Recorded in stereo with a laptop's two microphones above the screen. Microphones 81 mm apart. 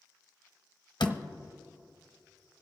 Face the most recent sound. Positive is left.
turn(degrees=80)